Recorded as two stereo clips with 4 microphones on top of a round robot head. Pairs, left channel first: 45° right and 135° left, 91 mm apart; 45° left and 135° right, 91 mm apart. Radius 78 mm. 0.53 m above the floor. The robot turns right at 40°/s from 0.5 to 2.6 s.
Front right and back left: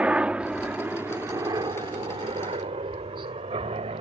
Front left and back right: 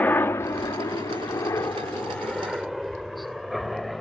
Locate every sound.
0.0 s a helicopter: 75° left; by 4.0 s 135° left